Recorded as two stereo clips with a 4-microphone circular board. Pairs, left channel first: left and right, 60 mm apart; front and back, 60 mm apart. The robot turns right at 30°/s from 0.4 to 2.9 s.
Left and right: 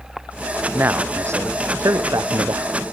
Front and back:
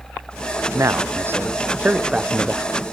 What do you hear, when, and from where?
0.7 s a man speaking: 145° right; by 2.7 s 90° right